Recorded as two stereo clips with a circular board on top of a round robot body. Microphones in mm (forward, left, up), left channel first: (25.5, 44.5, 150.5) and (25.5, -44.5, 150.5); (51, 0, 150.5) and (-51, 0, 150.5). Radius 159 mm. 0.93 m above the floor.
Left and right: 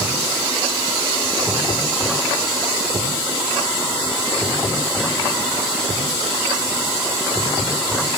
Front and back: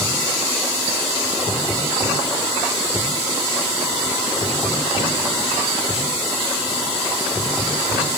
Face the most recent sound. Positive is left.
No sound to turn to.